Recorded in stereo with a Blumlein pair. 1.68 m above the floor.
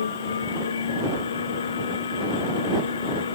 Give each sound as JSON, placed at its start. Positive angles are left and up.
{"t": 0.0, "sound": "a machine running", "azimuth_deg": 70}